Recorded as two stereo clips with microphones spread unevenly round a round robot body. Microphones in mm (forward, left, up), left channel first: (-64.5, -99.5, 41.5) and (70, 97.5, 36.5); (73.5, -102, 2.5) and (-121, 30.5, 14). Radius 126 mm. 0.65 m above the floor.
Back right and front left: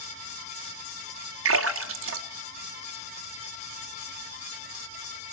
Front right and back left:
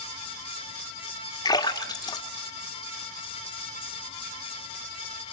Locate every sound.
1.4 s a splash: 35° left, 1.7 m